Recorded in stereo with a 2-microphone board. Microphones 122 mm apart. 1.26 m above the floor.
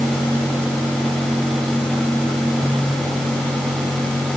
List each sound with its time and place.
Only background noise.